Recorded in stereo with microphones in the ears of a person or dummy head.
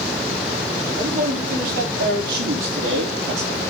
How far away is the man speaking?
About 4.5 m.